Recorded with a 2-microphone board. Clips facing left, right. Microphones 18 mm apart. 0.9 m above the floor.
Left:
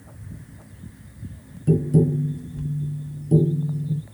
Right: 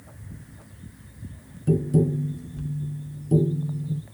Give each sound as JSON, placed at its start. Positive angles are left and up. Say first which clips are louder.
{"t": 1.7, "sound": "tapping", "louder": "left 2 dB", "side_deg": 0, "distance_m": 0.6}